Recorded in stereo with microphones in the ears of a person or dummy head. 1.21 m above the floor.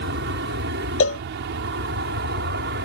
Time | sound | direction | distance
0.0 | an aircraft | 65° right (ahead or behind) | ?
1.0 | a cowbell | 70° left (ahead or behind) | ?